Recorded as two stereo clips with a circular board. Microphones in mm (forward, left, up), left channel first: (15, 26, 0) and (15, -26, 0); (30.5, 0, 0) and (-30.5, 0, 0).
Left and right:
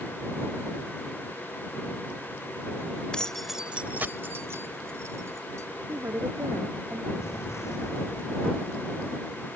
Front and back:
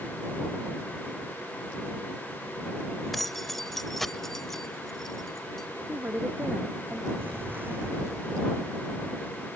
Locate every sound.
3.1 s keys jangling: 80° left; by 5.7 s 85° right
5.9 s a woman speaking: 120° right
7.2 s an explosion: 120° left